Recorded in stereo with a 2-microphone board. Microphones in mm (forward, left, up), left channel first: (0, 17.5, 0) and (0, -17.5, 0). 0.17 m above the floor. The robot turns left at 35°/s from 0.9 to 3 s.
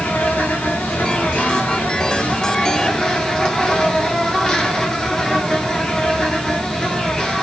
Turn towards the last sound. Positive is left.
turn(degrees=25)